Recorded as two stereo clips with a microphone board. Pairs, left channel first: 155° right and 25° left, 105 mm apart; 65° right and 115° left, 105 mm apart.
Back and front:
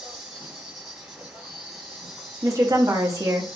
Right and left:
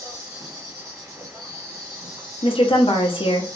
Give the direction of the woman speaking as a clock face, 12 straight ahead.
1 o'clock.